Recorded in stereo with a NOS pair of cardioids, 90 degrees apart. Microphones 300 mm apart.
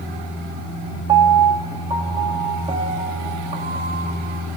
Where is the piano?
20° right, 1.0 m.